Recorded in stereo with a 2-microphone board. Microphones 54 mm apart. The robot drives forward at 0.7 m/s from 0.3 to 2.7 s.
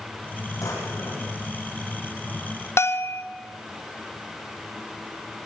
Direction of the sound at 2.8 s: 50° left (ahead or behind).